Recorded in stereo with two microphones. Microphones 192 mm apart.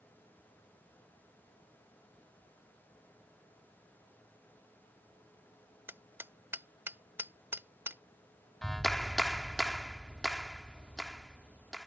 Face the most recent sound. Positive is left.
turn(degrees=0)  # may be behind; listen again after turning